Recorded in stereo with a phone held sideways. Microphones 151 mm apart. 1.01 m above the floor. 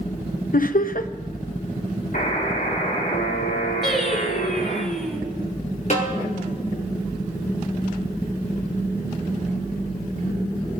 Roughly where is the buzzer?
Left.